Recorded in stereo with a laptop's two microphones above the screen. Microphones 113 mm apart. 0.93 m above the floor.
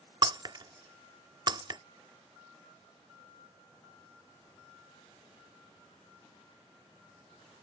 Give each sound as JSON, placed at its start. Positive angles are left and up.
{"t": 0.2, "sound": "breaking glass", "side_deg": -40}